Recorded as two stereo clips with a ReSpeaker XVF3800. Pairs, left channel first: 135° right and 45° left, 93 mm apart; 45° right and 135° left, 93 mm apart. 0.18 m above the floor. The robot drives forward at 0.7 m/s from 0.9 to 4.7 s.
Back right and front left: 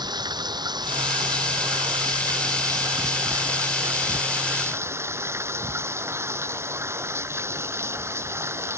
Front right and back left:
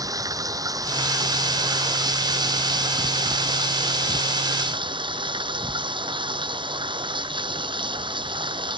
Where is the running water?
85° left; by 8.8 s 105° left.